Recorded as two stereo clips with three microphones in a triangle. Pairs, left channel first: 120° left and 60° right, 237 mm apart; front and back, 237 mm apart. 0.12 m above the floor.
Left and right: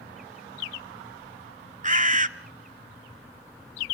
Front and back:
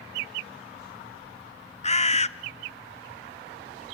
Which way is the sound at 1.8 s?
35° right.